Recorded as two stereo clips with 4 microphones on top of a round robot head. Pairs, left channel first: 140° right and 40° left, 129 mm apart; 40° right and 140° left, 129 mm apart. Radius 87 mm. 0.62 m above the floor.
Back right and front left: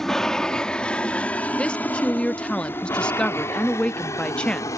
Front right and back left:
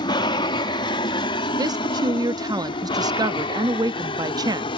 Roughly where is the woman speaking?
Behind left.